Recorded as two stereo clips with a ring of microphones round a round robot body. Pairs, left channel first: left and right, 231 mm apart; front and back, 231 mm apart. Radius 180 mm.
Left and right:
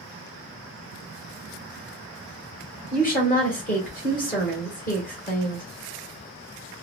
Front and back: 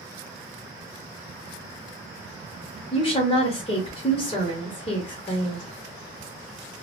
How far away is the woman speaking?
About 1.1 m.